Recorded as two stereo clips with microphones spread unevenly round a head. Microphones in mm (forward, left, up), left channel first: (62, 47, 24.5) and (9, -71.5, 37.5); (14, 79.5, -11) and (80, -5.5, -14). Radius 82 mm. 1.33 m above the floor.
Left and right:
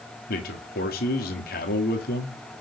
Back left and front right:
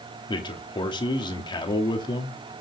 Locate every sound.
0.3 s a man speaking: 80° left, 2.5 m